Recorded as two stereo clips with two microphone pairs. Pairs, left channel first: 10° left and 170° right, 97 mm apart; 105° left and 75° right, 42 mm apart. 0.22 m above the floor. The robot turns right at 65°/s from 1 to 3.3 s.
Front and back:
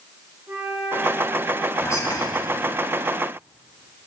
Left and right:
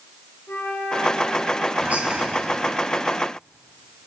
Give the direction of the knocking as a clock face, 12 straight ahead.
I don't hear knocking.